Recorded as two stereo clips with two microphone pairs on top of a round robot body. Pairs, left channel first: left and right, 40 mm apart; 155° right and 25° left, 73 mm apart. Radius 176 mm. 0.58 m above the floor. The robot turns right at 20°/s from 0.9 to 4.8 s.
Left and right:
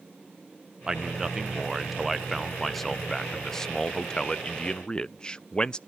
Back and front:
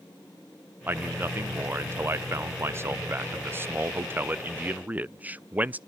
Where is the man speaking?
5° right, 0.6 m; by 5.8 s 75° left, 0.6 m.